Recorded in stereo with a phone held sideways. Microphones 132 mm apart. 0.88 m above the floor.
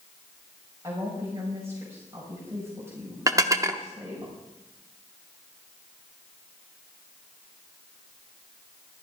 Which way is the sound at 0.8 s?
20° right (ahead or behind).